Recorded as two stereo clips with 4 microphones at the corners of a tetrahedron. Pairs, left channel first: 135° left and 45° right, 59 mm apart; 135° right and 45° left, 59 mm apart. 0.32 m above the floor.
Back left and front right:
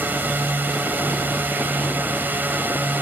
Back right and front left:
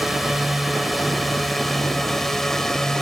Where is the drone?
40° right; by 3.0 s 60° right.